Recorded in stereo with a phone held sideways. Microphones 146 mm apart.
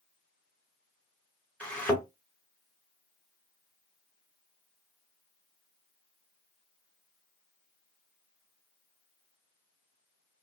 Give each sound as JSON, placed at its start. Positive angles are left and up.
{"t": 1.6, "sound": "a thud", "side_deg": 10, "distance_m": 1.3}